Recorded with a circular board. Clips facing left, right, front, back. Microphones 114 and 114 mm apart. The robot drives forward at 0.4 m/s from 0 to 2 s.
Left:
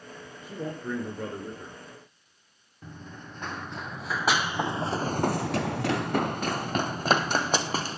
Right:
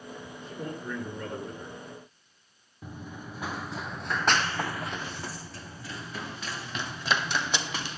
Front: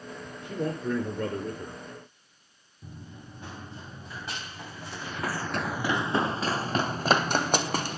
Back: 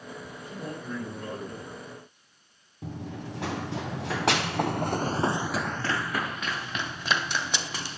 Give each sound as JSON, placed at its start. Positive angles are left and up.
{"t": 0.4, "sound": "a man speaking", "azimuth_deg": 20, "distance_m": 4.0}
{"t": 2.8, "sound": "running footsteps", "azimuth_deg": -170, "distance_m": 2.5}